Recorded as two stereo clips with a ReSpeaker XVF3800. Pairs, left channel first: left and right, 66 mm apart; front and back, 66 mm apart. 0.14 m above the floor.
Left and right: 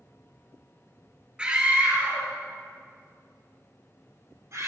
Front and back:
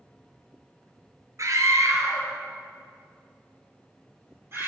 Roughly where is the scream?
Behind.